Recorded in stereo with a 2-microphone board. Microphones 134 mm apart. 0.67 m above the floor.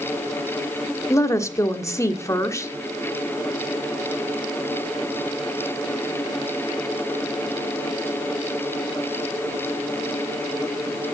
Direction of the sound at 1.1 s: 20° left (ahead or behind).